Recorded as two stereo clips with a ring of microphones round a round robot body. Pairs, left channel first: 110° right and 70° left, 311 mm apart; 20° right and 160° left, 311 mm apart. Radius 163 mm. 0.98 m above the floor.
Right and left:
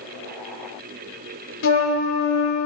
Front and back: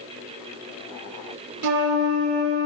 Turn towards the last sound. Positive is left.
turn(degrees=-165)